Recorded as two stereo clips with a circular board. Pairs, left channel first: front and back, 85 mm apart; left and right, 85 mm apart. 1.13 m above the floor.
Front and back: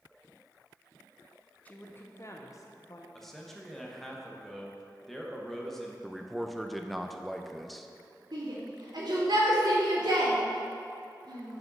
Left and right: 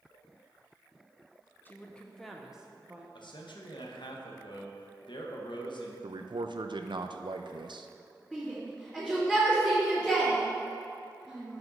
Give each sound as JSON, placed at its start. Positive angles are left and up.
{"t": 1.6, "sound": "a woman speaking", "azimuth_deg": 50, "distance_m": 0.7}
{"t": 3.1, "sound": "a man speaking", "azimuth_deg": 85, "distance_m": 1.0}
{"t": 6.0, "sound": "a man speaking", "azimuth_deg": -90, "distance_m": 0.5}
{"t": 8.3, "sound": "a shout", "azimuth_deg": 175, "distance_m": 2.5}